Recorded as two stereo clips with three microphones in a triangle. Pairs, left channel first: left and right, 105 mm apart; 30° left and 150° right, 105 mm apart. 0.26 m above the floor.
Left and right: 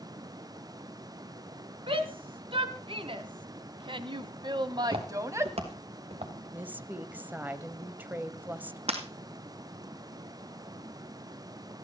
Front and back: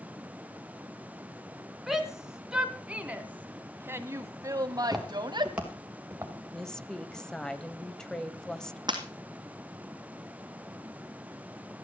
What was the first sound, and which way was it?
A shout, 65° right.